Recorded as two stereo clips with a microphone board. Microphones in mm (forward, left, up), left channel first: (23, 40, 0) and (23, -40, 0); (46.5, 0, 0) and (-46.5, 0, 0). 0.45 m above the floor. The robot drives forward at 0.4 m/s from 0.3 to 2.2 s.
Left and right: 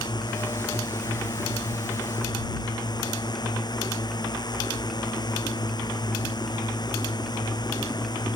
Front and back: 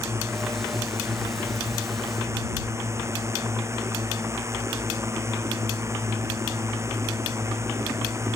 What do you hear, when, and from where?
0.0 s a drone: 120° left